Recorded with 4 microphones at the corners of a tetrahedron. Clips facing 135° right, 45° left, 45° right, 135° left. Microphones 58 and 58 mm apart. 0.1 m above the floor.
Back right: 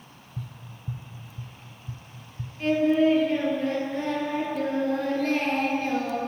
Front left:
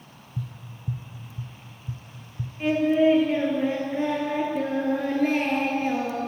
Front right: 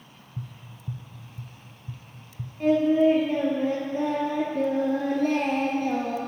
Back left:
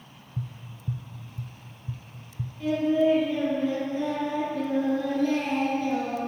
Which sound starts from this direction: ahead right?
Singing, at 2.6 s.